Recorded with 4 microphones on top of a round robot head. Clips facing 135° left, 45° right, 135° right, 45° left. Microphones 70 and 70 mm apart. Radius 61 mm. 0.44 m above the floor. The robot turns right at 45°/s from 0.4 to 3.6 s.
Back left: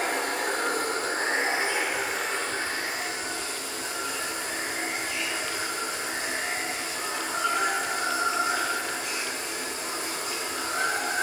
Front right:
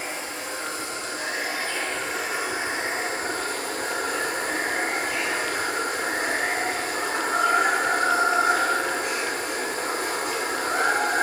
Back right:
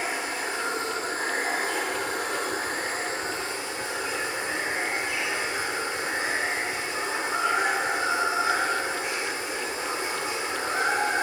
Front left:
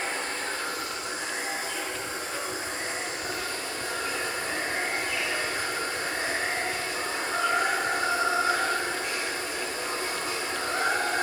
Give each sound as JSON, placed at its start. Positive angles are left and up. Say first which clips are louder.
{"t": 0.0, "sound": "running water", "louder": "back left 5 dB, back right 2 dB", "azimuth_deg": 145, "distance_m": 1.1}